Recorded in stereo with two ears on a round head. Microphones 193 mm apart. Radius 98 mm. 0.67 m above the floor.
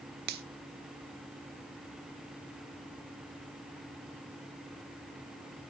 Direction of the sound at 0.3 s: 45° right (ahead or behind).